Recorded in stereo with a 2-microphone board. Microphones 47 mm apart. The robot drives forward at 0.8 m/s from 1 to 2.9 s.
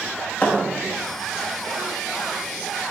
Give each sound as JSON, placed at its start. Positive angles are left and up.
{"t": 0.4, "sound": "a thud", "side_deg": 35, "distance_m": 0.9}